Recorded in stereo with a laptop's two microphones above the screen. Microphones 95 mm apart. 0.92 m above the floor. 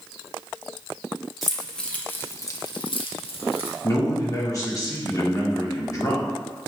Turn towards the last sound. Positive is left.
turn(degrees=35)  # may be behind; listen again after turning